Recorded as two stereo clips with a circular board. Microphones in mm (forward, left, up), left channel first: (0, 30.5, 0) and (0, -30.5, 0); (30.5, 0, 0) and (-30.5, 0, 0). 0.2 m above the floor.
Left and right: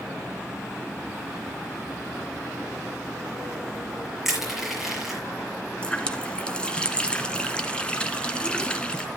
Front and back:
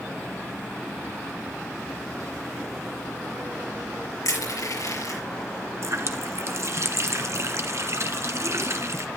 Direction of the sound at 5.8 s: 160° left.